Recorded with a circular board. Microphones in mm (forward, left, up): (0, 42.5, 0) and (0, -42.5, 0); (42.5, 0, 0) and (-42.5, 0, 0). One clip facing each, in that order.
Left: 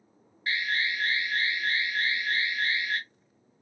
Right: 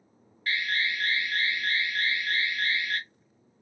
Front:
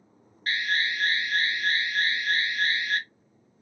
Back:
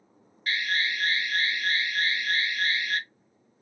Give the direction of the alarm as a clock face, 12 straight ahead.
11 o'clock.